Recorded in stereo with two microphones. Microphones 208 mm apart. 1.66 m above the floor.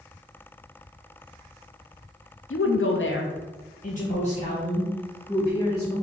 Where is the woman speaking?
75° left (ahead or behind), 0.5 m; by 5.9 s 20° left (ahead or behind), 1.9 m.